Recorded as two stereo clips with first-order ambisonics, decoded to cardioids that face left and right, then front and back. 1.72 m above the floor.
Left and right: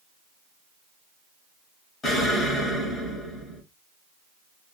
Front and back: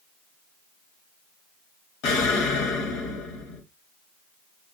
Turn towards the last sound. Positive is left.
turn(degrees=20)